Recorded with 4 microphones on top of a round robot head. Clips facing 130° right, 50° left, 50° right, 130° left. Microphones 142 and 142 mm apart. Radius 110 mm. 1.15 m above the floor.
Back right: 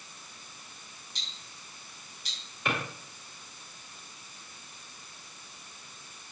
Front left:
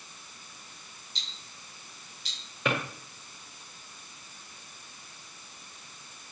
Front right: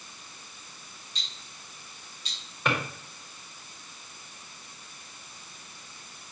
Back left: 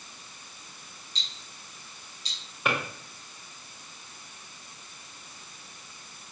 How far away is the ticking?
About 3.5 m.